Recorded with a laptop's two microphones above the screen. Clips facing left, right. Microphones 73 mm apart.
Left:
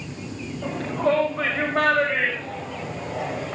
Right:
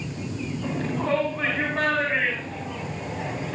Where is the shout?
50° left (ahead or behind), 6 m; by 3.5 s 65° left (ahead or behind), 5.5 m.